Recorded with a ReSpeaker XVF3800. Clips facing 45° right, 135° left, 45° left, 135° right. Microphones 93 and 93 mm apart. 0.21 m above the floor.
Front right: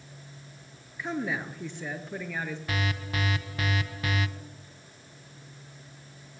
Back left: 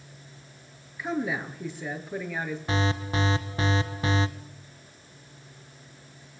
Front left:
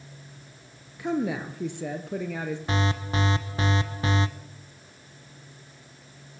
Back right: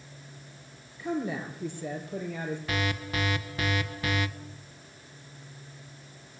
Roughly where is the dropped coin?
No dropped coin in this recording.